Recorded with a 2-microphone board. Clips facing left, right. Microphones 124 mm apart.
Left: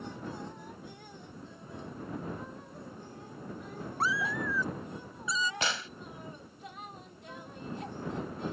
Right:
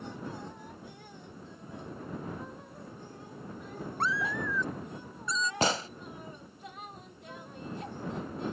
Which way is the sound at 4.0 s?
5° left (ahead or behind).